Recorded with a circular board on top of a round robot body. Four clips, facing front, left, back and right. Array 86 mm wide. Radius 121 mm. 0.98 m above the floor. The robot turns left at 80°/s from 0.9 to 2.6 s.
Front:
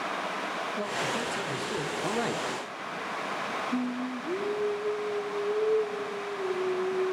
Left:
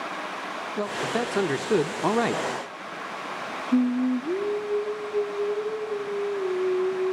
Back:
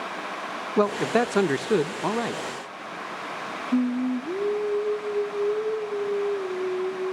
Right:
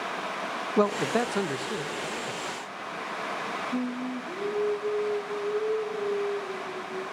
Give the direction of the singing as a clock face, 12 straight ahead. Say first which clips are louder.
Left 13 dB, back 12 dB; 8 o'clock.